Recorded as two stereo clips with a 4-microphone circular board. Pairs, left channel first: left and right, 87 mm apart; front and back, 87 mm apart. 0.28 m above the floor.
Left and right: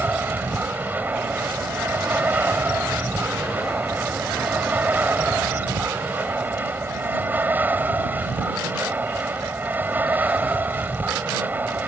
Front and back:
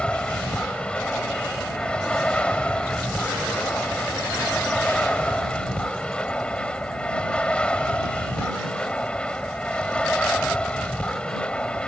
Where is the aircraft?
60° right.